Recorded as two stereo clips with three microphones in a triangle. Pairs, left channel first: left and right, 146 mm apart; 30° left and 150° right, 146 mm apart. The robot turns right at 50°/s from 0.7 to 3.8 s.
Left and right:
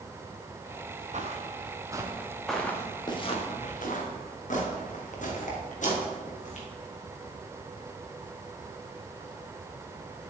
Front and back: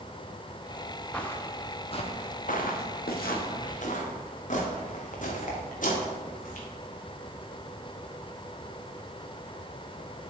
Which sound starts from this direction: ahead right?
Footsteps, at 1.1 s.